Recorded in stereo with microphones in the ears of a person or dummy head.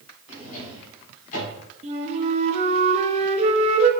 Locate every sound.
0.3 s a drawer: 40° left (ahead or behind), 4 m
1.8 s a flute: 40° right (ahead or behind), 1.2 m